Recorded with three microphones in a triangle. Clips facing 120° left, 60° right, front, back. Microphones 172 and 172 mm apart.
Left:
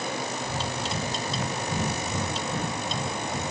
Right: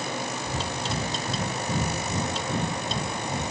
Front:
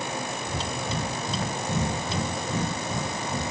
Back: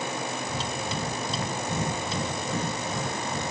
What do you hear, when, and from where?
0.4 s breathing: 55° right, 0.9 m